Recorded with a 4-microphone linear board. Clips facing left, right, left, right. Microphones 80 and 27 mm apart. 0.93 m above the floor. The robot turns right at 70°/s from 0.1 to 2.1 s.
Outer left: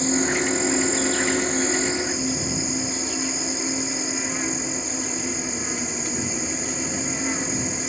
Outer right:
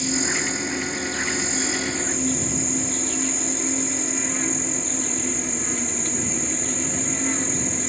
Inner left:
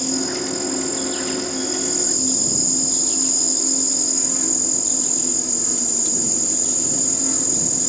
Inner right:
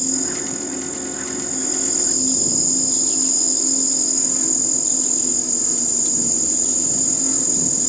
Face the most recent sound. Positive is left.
turn(degrees=175)